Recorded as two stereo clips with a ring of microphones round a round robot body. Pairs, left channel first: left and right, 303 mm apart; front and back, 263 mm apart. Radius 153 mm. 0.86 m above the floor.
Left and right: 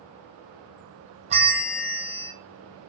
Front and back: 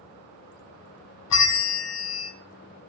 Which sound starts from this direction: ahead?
A bell, at 1.3 s.